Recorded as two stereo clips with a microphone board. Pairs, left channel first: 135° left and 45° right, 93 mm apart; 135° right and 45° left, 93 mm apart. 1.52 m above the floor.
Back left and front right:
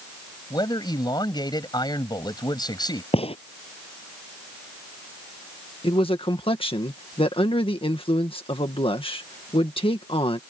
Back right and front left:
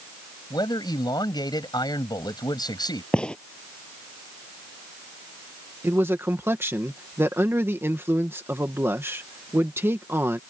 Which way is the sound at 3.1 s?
145° left.